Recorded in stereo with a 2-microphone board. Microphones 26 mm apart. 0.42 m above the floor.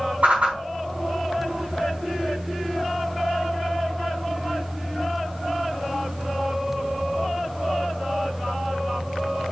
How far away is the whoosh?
About 3.5 m.